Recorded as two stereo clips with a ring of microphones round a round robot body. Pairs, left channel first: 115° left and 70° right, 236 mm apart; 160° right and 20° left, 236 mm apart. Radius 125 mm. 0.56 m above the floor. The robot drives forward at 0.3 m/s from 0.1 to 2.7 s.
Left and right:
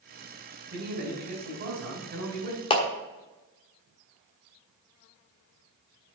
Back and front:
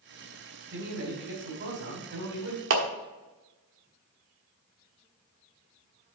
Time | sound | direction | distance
0.7 | a man speaking | 15° right | 4 m
2.7 | a clap | 45° left | 1.3 m